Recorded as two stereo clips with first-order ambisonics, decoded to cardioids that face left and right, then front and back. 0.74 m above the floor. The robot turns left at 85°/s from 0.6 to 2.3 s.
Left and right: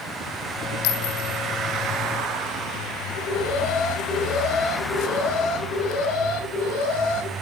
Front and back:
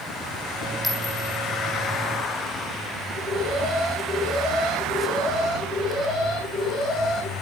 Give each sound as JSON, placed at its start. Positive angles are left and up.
{"t": 0.8, "sound": "a clink", "azimuth_deg": 85, "distance_m": 2.0}
{"t": 3.1, "sound": "an alarm", "azimuth_deg": 60, "distance_m": 7.0}